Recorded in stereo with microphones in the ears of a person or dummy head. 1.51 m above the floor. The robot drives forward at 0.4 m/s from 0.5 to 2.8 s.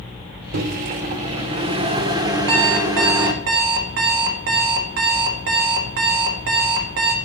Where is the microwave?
50° right (ahead or behind), 0.6 m; by 3.3 s 20° right (ahead or behind), 1.2 m.